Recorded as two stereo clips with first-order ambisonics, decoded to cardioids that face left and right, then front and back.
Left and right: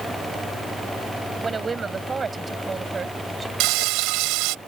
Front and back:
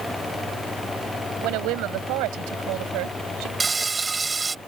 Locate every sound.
1.4 s a woman speaking: 160° right
3.6 s frying: 105° right